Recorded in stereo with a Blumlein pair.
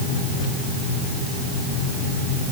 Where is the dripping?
No dripping in this recording.